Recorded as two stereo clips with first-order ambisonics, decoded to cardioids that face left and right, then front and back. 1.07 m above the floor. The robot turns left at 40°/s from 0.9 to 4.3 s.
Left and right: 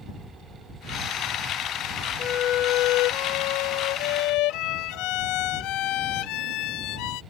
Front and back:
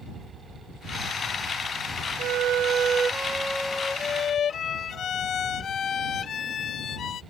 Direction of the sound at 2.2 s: 145° left.